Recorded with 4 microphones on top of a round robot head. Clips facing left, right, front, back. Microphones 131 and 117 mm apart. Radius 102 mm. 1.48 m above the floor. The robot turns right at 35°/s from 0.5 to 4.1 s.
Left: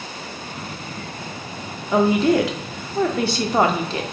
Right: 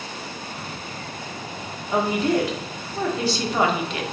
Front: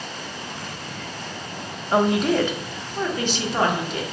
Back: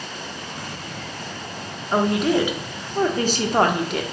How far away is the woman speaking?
About 0.6 m.